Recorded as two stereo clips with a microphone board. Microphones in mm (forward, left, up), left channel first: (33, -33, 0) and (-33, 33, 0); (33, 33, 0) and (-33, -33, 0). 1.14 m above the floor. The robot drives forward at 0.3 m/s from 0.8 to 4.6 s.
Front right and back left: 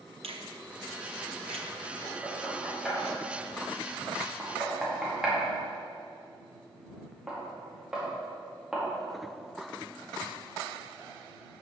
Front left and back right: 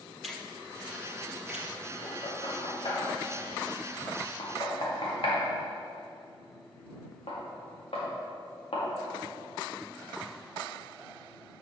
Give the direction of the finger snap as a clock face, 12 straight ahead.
7 o'clock.